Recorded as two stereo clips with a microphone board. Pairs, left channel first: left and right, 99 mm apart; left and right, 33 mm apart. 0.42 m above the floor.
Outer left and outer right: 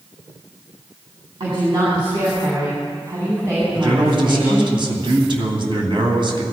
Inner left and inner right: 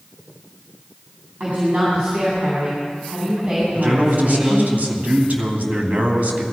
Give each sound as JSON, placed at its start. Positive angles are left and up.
{"t": 1.4, "sound": "a woman speaking", "side_deg": -55, "distance_m": 4.0}
{"t": 3.7, "sound": "a man speaking", "side_deg": -55, "distance_m": 2.5}